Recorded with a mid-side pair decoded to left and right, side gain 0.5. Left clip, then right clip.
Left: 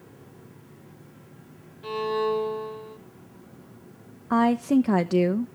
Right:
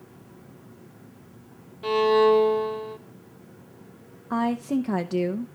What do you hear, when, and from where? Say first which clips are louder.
1.8 s a violin: right 7 dB; 50° right, 0.8 m
4.3 s a woman speaking: left 4 dB; 30° left, 0.6 m